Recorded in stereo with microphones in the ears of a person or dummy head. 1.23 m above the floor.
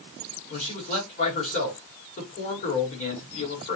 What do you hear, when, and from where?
0.5 s a man speaking: 40° left (ahead or behind), 1.2 m